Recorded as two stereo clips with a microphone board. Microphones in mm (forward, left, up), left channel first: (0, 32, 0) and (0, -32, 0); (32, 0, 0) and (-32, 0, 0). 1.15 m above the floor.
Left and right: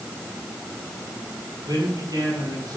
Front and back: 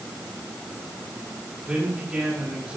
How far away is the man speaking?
About 9 m.